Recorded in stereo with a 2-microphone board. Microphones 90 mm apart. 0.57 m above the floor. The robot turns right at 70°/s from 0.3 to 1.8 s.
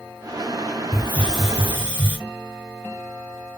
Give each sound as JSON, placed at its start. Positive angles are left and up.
{"t": 0.9, "sound": "a hiss", "azimuth_deg": 145, "distance_m": 1.5}